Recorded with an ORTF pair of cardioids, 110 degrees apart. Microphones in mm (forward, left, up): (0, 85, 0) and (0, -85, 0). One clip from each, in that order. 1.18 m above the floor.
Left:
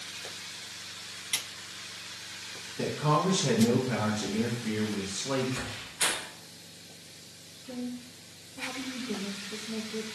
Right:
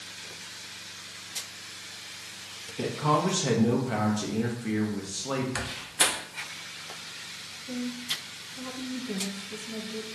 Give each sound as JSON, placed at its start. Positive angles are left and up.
{"t": 2.8, "sound": "a man speaking", "azimuth_deg": -20, "distance_m": 0.8}
{"t": 5.5, "sound": "a door slam", "azimuth_deg": -60, "distance_m": 0.6}
{"t": 7.7, "sound": "a woman speaking", "azimuth_deg": -15, "distance_m": 0.7}